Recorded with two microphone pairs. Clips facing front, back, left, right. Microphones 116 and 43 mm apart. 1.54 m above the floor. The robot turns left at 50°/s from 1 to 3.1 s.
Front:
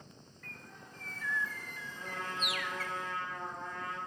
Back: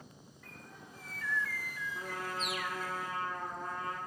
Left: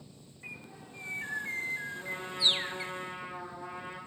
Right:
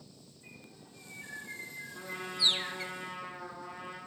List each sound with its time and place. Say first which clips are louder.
0.4 s a bird: even, left 8 dB; 100° left, 0.9 m; by 2.9 s straight ahead, 0.9 m
1.9 s a trumpet: even, left 1 dB; 160° right, 7.5 m; by 4.0 s 140° left, 7.5 m